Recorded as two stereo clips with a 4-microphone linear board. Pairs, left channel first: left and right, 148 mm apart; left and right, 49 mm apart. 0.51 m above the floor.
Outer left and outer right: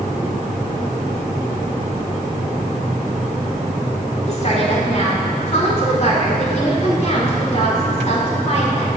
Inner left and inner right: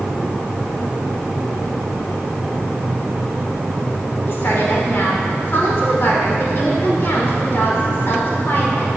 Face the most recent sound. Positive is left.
turn(degrees=45)  # may be behind; listen again after turning